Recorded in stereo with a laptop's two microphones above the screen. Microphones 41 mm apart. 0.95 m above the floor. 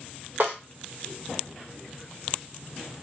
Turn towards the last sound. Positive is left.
turn(degrees=-55)  # may be behind; listen again after turning